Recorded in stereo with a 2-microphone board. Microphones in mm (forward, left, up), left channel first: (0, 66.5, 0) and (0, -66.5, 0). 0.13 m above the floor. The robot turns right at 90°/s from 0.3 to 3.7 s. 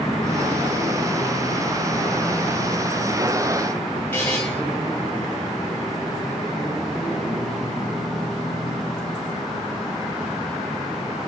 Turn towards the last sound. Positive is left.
turn(degrees=15)  # may be behind; listen again after turning